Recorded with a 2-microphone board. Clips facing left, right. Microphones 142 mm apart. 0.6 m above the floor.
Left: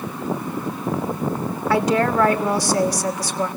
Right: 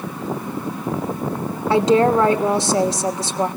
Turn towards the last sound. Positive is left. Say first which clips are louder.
# right 4 dB
turn(degrees=-25)  # may be behind; listen again after turning